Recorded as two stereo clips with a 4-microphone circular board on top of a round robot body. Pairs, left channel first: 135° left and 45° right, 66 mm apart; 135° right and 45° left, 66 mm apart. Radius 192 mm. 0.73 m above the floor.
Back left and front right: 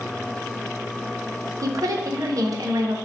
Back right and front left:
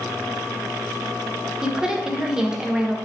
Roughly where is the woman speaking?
Ahead right.